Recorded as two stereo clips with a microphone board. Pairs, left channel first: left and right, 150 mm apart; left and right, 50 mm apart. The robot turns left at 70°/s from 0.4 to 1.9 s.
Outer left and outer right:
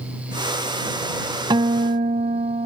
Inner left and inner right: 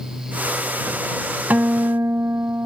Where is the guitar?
35° right (ahead or behind); by 2.7 s 60° right (ahead or behind).